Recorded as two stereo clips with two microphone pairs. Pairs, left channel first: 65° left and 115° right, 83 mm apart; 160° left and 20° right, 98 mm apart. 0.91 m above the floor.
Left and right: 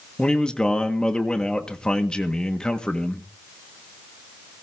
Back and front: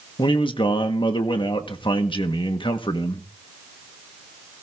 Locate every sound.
0.2 s a man speaking: 145° left, 1.5 m